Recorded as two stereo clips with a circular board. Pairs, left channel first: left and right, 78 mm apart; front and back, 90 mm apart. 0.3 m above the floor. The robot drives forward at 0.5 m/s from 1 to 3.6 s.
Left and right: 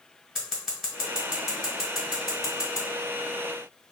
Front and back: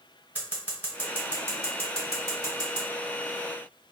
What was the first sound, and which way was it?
Scissors, 160° right.